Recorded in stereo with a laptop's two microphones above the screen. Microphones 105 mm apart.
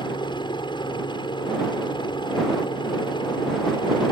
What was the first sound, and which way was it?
A helicopter, 50° left (ahead or behind).